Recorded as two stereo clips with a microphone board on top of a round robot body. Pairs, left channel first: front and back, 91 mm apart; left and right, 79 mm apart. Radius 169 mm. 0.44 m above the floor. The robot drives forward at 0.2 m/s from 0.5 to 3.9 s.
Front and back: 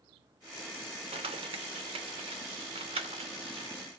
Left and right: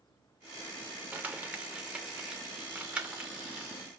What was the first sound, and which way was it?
Crumpling, 160° right.